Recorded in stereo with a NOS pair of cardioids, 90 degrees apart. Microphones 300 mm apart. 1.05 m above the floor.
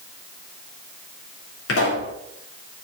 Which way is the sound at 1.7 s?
50° left.